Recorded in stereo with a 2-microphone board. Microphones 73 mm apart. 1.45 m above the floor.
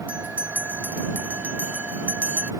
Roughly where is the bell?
Centre.